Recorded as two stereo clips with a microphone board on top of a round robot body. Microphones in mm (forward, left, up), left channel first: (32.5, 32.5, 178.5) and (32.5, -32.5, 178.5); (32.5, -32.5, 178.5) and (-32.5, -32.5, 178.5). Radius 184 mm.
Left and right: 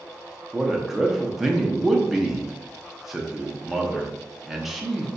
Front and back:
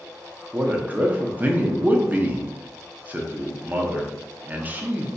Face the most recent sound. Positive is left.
turn(degrees=-175)